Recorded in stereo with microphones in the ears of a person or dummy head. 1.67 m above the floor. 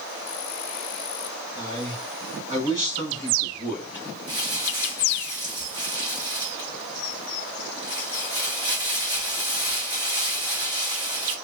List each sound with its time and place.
1.6 s a man speaking: 25° right (ahead or behind), 3 m; by 4.0 s 15° right (ahead or behind), 4 m
4.3 s crumpling: 20° right (ahead or behind), 1.9 m